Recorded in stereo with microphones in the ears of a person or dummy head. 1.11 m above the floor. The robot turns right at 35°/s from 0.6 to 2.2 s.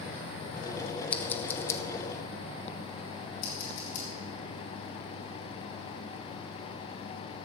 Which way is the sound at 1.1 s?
5° left (ahead or behind).